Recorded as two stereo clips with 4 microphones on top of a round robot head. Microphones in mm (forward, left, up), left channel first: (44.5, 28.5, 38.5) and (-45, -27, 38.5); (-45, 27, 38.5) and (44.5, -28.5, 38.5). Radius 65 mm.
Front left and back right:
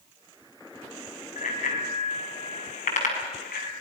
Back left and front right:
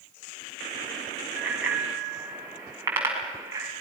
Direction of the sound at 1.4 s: 50° left.